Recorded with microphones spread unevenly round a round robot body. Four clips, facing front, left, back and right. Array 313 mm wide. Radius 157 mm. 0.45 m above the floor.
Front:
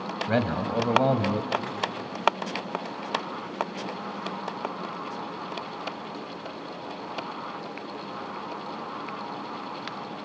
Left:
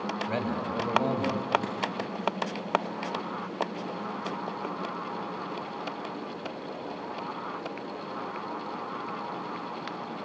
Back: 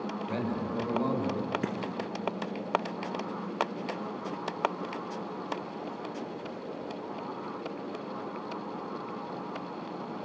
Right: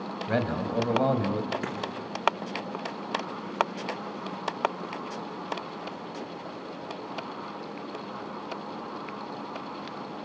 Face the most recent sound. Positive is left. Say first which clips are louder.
# even, back 1 dB
turn(degrees=-160)